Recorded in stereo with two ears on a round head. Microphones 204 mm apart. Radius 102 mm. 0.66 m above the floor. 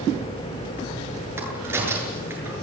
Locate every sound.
1.4 s a crack: 10° right (ahead or behind), 8.5 m